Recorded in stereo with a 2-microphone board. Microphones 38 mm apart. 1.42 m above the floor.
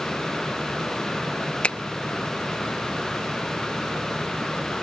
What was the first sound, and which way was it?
A finger snap, 30° left (ahead or behind).